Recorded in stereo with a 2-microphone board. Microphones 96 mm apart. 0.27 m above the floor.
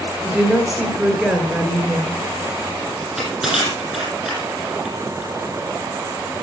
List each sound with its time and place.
0.2 s a woman speaking: 5° right (ahead or behind), 4 m
3.0 s crushing: centre (ahead or behind), 9.5 m